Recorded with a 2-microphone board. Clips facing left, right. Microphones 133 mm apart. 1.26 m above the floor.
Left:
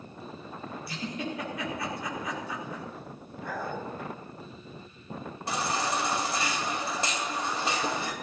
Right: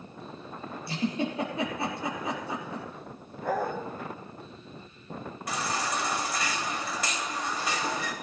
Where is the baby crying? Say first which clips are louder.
Left 2 dB; 30° left (ahead or behind), 2.5 m.